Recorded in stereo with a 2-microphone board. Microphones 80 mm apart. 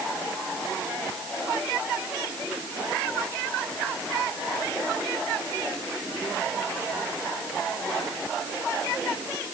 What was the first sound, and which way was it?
Only background noise.